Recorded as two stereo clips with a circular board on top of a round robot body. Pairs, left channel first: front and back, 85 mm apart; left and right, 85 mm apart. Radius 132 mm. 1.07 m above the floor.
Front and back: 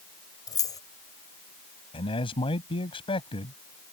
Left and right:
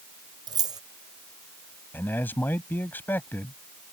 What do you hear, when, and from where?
0.5 s keys jangling: 50° right
1.9 s a man speaking: 20° left